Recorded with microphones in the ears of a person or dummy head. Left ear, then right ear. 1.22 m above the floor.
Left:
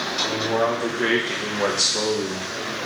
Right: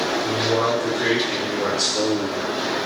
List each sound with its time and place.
0.2 s a man speaking: 10° left (ahead or behind), 1.3 m; by 2.5 s 60° left (ahead or behind), 1.2 m